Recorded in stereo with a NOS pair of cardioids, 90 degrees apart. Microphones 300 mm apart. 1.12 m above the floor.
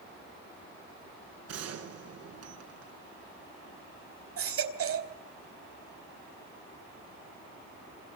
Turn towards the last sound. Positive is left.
turn(degrees=-50)